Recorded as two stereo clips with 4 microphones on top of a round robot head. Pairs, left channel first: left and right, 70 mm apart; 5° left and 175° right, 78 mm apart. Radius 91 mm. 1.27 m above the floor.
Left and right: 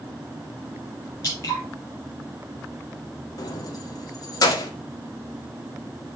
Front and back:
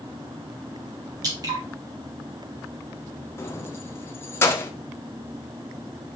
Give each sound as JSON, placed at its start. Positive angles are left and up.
{"t": 1.2, "sound": "dripping", "azimuth_deg": 145, "distance_m": 3.5}
{"t": 3.4, "sound": "keys jangling", "azimuth_deg": 60, "distance_m": 0.9}